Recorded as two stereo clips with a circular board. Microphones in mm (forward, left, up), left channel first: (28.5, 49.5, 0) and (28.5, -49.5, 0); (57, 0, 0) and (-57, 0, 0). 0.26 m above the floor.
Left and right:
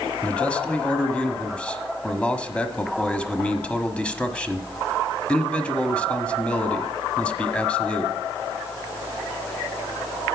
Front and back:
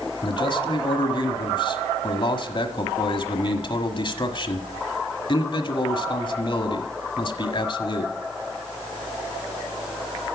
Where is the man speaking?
15° left, 1.3 m.